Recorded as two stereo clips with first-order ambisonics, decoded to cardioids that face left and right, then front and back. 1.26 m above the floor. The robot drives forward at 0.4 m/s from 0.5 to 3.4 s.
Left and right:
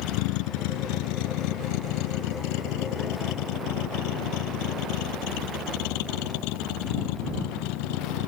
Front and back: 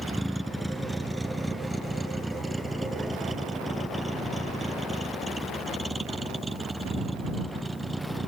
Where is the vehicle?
90° left; by 8.3 s 95° left.